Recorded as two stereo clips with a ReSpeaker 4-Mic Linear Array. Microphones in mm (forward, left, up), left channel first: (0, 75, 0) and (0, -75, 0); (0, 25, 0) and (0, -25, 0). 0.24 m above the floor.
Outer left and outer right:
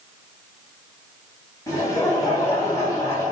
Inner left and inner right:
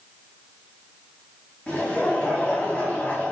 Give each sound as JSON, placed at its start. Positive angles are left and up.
{"t": 1.7, "sound": "laughter", "side_deg": 20, "distance_m": 2.0}